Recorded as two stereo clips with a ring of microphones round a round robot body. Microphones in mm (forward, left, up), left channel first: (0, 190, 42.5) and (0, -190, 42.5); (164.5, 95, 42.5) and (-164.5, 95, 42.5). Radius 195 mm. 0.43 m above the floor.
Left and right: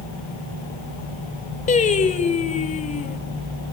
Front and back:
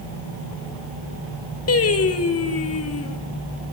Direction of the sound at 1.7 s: 25° left.